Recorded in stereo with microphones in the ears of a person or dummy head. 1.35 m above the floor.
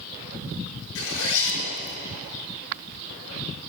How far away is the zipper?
About 6 m.